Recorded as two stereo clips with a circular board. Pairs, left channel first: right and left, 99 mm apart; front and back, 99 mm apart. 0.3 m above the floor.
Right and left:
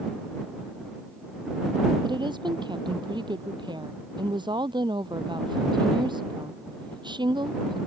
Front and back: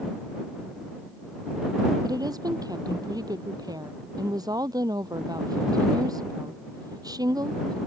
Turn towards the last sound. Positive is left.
turn(degrees=130)